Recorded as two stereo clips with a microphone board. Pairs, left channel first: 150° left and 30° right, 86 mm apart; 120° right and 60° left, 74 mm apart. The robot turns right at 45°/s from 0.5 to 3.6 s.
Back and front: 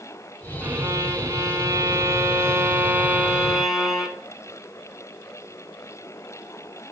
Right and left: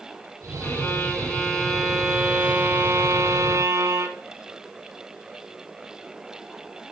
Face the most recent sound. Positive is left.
turn(degrees=55)